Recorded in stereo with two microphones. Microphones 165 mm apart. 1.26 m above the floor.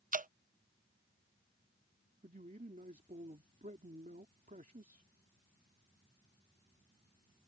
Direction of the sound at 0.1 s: 55° right (ahead or behind).